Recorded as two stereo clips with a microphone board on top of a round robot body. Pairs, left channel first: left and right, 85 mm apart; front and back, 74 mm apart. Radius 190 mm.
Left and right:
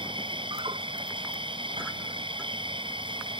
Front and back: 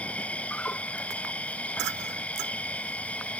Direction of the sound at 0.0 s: 70° right.